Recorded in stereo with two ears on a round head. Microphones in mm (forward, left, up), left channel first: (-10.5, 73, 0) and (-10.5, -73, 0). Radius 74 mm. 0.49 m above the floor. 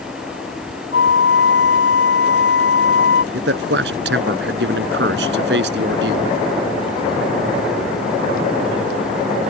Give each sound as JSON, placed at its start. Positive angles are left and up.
{"t": 0.9, "sound": "a flute", "side_deg": 80}
{"t": 3.3, "sound": "a man speaking", "side_deg": -75}